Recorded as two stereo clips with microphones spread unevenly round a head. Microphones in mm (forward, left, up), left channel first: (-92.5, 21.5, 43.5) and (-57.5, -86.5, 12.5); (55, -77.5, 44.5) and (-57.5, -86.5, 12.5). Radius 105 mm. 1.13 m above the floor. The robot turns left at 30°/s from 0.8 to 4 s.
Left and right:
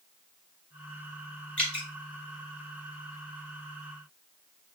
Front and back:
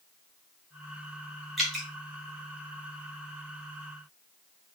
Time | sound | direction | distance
1.6 | dripping | 65° left | 0.5 m